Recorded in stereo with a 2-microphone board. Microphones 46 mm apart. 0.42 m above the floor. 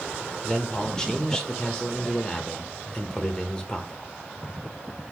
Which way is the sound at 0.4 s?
15° left (ahead or behind).